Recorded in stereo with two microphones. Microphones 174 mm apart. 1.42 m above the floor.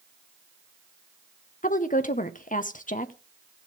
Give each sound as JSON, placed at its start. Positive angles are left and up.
{"t": 1.6, "sound": "a woman speaking", "side_deg": 45, "distance_m": 1.1}